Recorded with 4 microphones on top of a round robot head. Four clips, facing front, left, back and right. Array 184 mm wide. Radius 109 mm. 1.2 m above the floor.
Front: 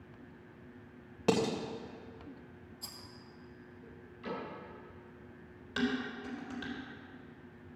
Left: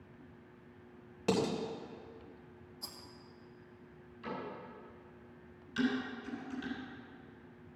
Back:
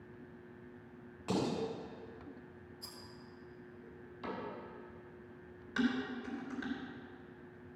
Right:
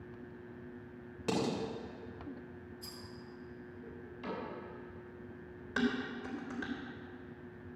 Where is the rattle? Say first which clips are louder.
Right 2 dB, front 1 dB; 60° left, 2.5 m.